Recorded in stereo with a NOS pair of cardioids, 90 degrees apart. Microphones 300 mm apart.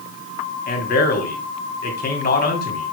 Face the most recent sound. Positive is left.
turn(degrees=30)